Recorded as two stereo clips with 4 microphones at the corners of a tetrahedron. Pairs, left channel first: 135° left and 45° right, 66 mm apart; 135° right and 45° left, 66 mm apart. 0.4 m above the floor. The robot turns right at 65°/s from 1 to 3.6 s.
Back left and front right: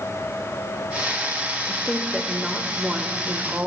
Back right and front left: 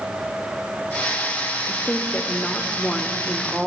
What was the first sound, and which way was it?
A woman speaking, 155° right.